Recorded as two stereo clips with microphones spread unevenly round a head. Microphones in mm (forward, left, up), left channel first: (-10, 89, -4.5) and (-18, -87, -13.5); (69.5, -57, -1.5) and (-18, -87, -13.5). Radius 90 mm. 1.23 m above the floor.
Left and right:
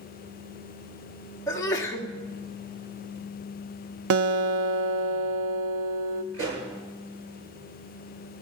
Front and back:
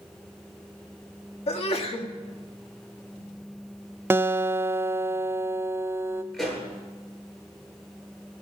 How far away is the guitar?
About 0.7 m.